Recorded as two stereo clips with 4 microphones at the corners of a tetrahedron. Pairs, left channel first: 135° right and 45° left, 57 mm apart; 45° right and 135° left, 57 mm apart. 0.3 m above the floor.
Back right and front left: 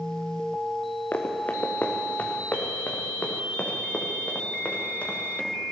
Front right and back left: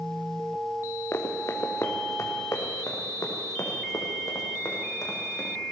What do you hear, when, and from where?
1.1 s running footsteps: 80° right, 2.0 m; by 5.5 s 70° right, 5 m